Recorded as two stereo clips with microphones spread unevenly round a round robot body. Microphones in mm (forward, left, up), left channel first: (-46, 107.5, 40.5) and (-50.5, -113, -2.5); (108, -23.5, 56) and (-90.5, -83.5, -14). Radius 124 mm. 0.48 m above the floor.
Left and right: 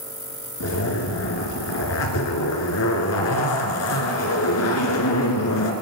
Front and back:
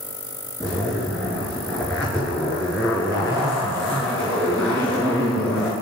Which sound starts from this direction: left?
A zipper, at 0.6 s.